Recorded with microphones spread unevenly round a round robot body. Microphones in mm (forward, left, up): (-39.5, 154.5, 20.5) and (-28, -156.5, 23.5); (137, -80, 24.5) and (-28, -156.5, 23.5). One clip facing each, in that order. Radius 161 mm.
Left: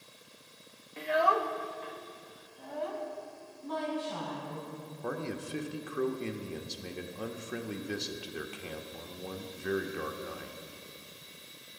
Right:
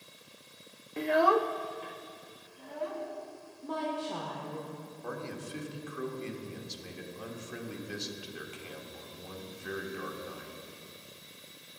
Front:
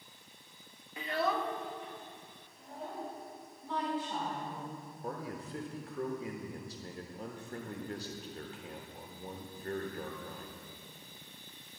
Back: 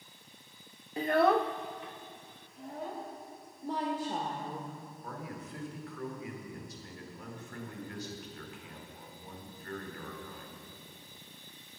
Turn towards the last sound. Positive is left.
turn(degrees=85)